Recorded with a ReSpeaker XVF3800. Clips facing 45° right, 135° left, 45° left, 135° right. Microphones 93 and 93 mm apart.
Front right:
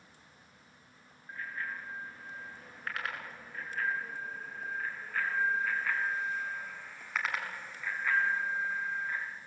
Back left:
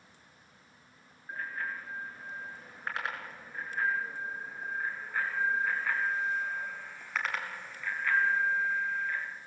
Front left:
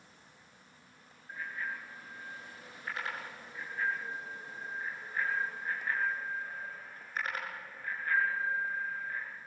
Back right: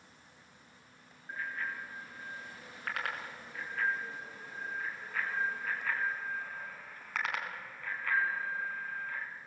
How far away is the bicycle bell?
About 7 m.